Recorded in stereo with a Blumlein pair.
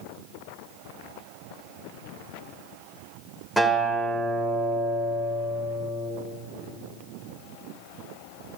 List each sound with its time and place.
3.6 s a guitar: straight ahead, 2 m